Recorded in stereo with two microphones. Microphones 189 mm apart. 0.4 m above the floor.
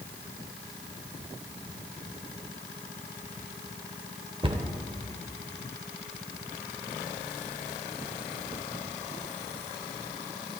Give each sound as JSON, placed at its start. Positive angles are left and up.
{"t": 4.4, "sound": "a cupboard door", "side_deg": -25, "distance_m": 0.7}